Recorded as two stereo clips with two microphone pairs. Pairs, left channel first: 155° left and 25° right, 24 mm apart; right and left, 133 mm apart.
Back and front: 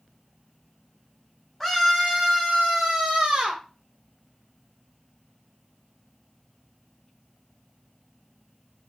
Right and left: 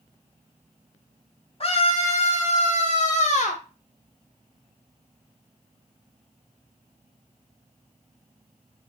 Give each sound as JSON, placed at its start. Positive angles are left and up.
{"t": 1.6, "sound": "a scream", "azimuth_deg": -130, "distance_m": 3.0}